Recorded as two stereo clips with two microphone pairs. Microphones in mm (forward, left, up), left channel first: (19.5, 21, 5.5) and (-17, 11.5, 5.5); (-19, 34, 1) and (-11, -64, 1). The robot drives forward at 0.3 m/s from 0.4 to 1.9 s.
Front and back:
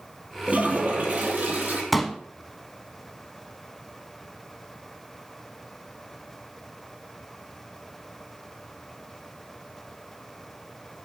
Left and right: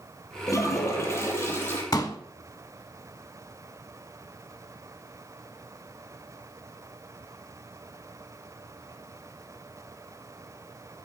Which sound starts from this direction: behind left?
A toilet flushing, at 0.5 s.